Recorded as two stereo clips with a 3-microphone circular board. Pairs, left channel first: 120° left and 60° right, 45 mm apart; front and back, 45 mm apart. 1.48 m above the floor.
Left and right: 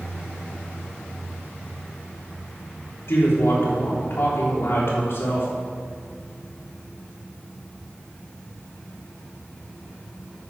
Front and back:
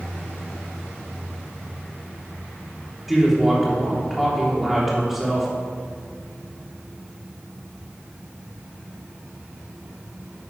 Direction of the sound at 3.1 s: 90° left.